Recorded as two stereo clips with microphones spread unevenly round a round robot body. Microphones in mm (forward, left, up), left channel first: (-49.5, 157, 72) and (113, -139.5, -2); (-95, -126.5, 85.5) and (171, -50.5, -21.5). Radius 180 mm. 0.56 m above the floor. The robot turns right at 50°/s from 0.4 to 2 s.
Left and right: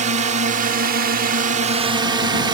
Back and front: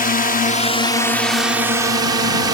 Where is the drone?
90° right; by 2.6 s 10° right.